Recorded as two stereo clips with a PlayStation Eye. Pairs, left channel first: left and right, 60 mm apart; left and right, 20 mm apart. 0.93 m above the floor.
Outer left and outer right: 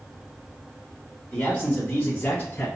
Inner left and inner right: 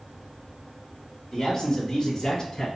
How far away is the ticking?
No ticking in this recording.